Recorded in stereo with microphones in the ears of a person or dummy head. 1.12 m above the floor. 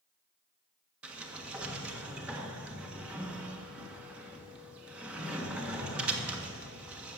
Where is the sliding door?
10° right (ahead or behind), 1.4 m.